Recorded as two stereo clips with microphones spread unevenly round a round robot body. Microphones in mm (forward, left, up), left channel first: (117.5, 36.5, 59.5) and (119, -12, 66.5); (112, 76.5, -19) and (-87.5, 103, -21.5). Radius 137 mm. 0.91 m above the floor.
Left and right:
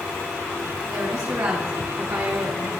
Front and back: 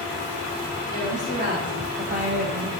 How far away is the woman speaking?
About 6 m.